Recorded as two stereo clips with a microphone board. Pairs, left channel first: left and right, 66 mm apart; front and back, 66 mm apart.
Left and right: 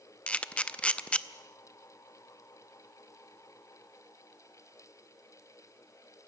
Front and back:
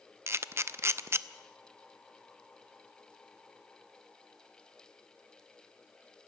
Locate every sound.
0.3 s a camera shutter: 155° left, 0.6 m